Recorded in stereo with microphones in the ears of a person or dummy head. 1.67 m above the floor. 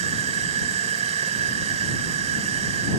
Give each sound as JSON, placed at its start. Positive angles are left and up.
{"t": 0.0, "sound": "an insect", "side_deg": -40}